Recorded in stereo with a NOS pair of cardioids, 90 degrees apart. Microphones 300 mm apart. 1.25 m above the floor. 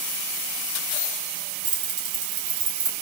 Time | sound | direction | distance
1.6 | keys jangling | 55° right | 2.5 m